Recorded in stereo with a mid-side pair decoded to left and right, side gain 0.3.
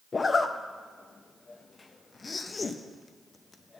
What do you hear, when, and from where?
0.1 s a zipper: 45° left, 0.6 m